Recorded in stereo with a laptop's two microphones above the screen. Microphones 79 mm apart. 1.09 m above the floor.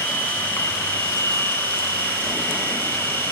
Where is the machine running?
25° left (ahead or behind), 2.5 m.